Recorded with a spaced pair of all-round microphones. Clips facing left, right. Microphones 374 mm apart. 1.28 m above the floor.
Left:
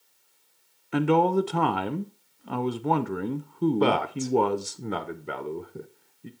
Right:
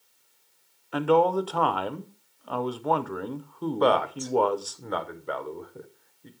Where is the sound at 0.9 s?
35° left (ahead or behind), 0.5 m.